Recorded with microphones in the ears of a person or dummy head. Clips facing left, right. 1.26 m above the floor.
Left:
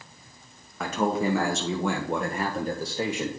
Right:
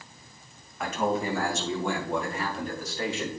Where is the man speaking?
70° left (ahead or behind), 1.7 m; by 3.3 s 5° left (ahead or behind), 0.8 m.